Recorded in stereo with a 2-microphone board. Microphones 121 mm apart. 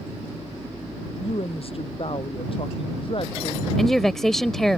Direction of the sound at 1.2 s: 50° left (ahead or behind).